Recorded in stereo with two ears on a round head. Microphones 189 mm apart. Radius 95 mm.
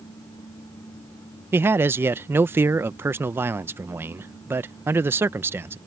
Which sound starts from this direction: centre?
A man speaking, at 1.5 s.